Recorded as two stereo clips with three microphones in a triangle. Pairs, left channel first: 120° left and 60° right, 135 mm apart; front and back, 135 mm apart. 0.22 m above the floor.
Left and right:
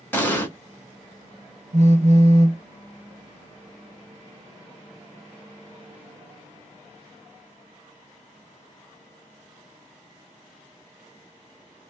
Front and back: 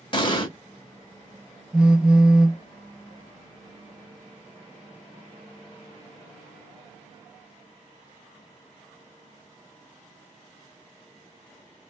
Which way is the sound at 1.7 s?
95° right.